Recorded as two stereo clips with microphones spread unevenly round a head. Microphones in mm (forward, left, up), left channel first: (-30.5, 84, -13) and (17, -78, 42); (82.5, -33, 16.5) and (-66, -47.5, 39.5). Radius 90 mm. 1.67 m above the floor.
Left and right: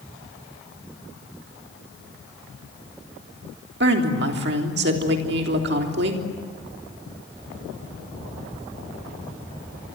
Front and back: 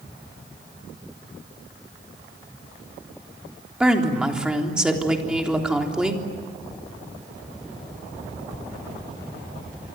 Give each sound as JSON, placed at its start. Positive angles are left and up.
{"t": 3.8, "sound": "a woman speaking", "azimuth_deg": -90, "distance_m": 3.5}